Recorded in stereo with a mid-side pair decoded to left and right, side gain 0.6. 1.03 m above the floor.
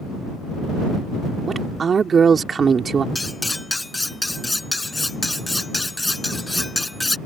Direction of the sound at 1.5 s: 30° right.